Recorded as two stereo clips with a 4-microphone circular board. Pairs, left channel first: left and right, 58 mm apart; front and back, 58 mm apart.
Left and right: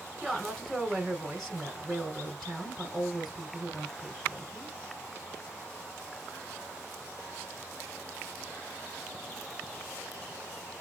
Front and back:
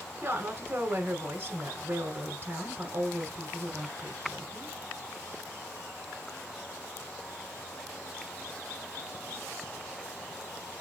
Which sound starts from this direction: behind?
A woman speaking, at 0.2 s.